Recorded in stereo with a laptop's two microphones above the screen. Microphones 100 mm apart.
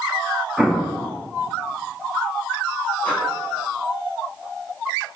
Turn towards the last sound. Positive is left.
turn(degrees=15)  # may be behind; listen again after turning